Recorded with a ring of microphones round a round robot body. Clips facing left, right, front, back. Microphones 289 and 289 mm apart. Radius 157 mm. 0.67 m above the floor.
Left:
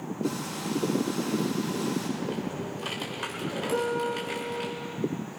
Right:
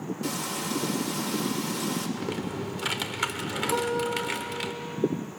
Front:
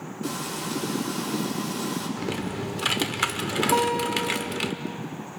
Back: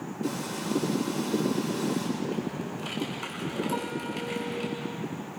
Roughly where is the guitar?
Ahead.